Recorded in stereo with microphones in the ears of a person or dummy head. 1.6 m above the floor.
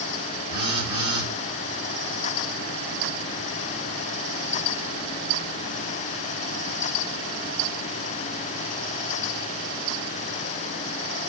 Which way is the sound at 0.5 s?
30° right (ahead or behind).